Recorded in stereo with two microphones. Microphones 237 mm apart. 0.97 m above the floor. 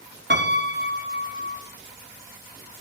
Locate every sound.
0.3 s a piano: 50° right (ahead or behind), 0.9 m